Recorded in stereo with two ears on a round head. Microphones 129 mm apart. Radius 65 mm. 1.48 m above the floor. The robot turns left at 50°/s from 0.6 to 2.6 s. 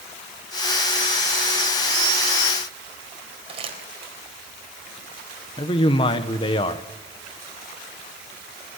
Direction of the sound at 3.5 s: 40° right (ahead or behind).